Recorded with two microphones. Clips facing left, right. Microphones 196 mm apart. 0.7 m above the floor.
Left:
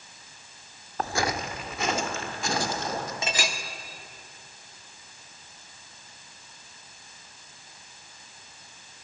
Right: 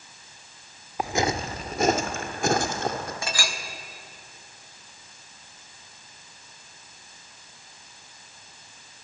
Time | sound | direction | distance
1.0 | footsteps | 10° right (ahead or behind) | 0.6 m
3.2 | a clink | 20° left (ahead or behind) | 0.8 m